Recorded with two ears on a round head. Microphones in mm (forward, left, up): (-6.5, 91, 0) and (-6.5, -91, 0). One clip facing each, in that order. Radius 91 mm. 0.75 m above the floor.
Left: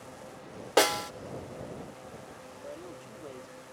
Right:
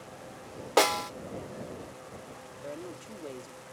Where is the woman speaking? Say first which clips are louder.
Right 3 dB; 25° right (ahead or behind).